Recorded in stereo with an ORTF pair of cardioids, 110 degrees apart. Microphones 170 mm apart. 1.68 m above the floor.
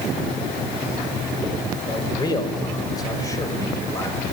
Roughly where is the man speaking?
Ahead left.